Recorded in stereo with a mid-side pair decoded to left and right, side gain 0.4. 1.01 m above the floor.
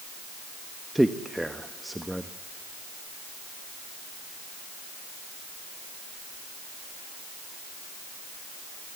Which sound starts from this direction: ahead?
A man speaking, at 0.9 s.